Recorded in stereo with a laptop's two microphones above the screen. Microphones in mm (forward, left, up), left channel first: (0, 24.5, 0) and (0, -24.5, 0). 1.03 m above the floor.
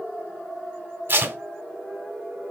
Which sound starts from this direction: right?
Tape being pulled, at 1.1 s.